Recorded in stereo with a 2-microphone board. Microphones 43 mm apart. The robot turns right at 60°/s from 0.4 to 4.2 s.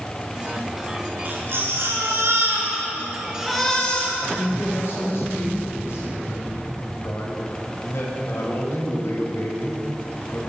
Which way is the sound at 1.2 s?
135° right.